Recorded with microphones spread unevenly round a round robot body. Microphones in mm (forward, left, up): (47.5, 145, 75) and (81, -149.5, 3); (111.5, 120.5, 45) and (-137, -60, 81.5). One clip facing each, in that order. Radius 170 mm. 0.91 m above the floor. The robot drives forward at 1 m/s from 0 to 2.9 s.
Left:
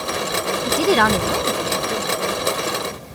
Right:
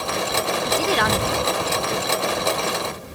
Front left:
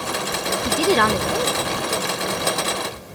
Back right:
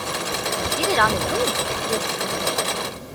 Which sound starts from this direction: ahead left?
A woman speaking, at 0.7 s.